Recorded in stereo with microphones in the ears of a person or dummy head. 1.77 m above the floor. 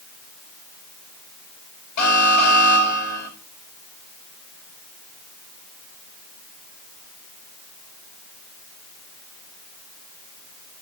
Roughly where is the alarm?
Left.